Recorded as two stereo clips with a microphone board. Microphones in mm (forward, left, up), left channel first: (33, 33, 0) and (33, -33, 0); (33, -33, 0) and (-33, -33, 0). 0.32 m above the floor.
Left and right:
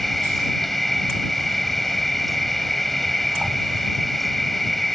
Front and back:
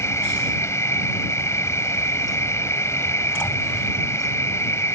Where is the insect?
5° left.